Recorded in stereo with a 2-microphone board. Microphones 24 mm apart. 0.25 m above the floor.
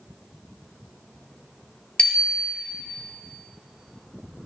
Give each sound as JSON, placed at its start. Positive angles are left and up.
{"t": 2.0, "sound": "a bicycle bell", "side_deg": 35, "distance_m": 3.5}